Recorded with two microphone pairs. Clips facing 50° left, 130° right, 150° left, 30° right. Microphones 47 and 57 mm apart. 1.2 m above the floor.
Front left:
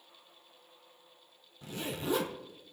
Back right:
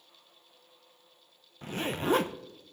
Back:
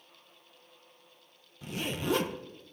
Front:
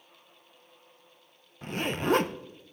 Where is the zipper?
80° right, 0.5 m.